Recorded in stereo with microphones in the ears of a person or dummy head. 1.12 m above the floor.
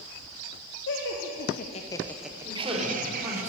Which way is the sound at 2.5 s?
15° right (ahead or behind).